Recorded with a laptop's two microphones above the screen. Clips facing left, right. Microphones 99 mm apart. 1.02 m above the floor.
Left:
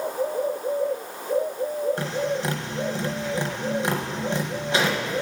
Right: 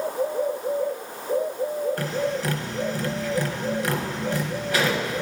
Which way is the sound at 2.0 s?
25° left (ahead or behind).